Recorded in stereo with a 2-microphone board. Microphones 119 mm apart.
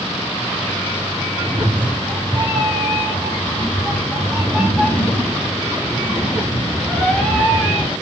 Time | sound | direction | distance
1.4 | a cat meowing | 40° right (ahead or behind) | 2.5 m